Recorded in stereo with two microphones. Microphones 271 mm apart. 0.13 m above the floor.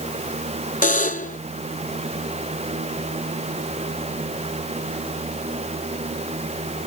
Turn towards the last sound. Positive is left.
turn(degrees=30)  # may be behind; listen again after turning